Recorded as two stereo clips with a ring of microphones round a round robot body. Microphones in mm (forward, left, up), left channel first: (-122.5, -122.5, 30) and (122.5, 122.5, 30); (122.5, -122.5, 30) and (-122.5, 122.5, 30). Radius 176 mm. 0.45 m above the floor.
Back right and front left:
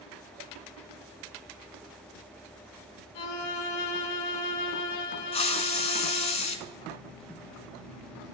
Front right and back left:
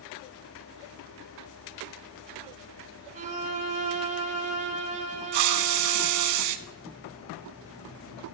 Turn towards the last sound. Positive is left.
turn(degrees=150)